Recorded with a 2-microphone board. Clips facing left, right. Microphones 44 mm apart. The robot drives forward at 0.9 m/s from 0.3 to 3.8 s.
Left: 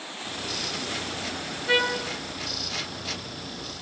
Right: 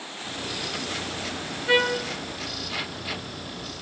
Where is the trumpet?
20° right (ahead or behind), 2.5 m; by 2.0 s 15° right (ahead or behind), 3 m.